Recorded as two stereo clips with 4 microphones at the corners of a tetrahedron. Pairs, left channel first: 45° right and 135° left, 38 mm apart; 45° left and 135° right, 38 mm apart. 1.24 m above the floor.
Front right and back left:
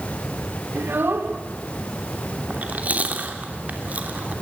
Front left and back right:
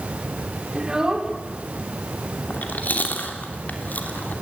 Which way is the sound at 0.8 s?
155° left.